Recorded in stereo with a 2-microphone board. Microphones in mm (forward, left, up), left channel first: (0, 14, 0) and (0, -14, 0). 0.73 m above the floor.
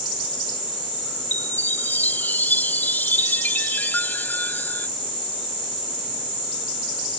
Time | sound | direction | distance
1.3 | a chime | 85° left | ?